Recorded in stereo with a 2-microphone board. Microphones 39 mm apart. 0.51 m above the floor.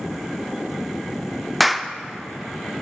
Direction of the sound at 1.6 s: Centre (ahead or behind).